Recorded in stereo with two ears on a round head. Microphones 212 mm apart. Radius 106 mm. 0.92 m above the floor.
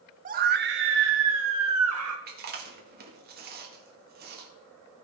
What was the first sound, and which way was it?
A scream, 35° right (ahead or behind).